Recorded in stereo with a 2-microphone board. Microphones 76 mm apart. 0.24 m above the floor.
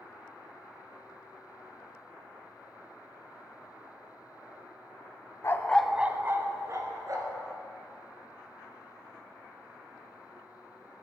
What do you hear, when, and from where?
5.4 s a dog barking: 40° left (ahead or behind), 0.6 m; by 7.4 s 50° right (ahead or behind), 2 m